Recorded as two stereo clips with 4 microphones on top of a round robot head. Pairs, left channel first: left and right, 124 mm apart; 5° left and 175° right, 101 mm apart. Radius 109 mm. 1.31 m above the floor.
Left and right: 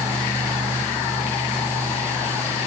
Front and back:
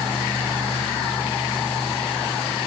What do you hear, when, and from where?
Only background noise.